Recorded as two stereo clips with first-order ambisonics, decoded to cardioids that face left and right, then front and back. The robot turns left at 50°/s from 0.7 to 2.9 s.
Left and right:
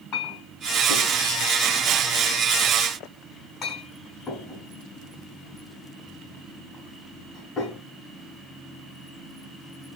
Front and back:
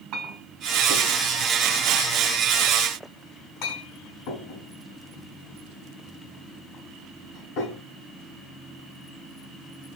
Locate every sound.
0.1 s a clink: 135° left, 3 m; by 7.8 s 25° left, 3 m